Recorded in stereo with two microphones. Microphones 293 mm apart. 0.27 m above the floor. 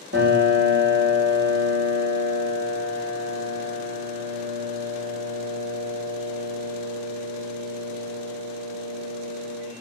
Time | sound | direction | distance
0.1 | a piano | 35° right (ahead or behind) | 2.5 m